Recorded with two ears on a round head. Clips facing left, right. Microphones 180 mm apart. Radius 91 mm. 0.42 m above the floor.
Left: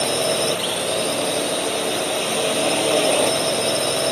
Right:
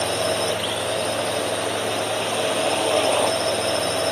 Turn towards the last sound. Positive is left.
turn(degrees=20)  # may be behind; listen again after turning